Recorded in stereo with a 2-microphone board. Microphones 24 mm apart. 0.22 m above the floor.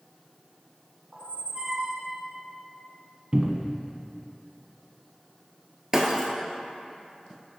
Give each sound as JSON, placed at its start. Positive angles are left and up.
{"t": 1.1, "sound": "a squeak", "side_deg": -30, "distance_m": 1.0}
{"t": 3.3, "sound": "a cupboard door", "side_deg": -40, "distance_m": 0.5}
{"t": 5.9, "sound": "breaking glass", "side_deg": -25, "distance_m": 0.9}